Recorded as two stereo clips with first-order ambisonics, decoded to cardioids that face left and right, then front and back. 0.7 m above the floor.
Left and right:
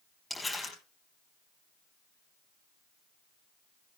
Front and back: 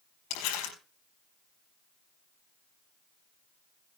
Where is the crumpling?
15° left, 5 m.